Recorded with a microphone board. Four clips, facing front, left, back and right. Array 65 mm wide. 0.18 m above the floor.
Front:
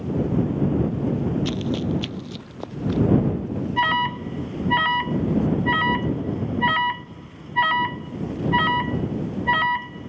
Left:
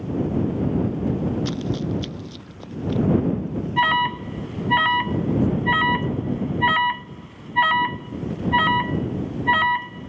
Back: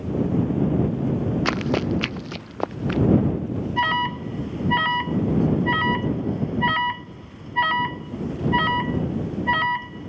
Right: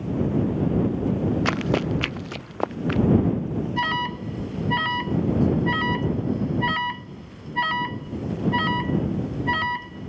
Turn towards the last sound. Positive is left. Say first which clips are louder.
# left 8 dB, front 1 dB
turn(degrees=85)